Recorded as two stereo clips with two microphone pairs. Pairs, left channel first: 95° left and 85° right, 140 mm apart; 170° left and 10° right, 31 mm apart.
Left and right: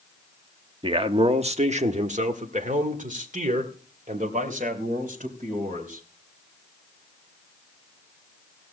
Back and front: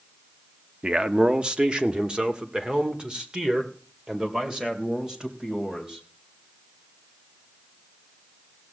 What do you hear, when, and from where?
0.8 s a man speaking: 50° right, 0.7 m; by 6.0 s 70° right, 3 m